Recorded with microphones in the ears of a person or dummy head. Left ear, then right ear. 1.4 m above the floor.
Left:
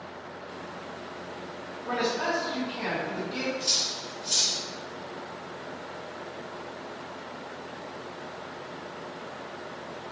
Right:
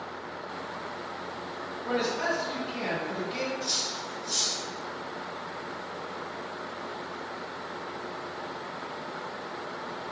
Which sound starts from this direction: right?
A man speaking, at 1.9 s.